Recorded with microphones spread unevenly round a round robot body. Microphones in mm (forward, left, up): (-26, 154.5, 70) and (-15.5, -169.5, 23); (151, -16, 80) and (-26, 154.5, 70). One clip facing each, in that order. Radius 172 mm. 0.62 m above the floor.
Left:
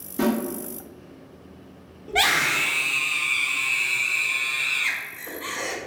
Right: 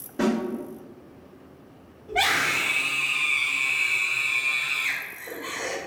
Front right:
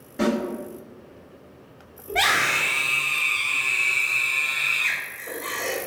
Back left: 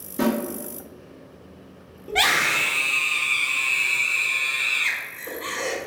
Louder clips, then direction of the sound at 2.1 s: Left 1 dB, back left 1 dB; 110° left.